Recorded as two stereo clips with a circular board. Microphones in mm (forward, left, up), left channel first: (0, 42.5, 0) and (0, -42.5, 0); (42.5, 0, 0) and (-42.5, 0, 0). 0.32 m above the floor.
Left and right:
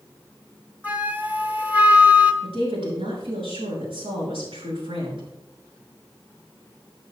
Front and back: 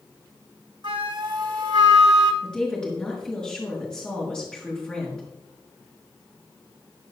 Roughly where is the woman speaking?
Right.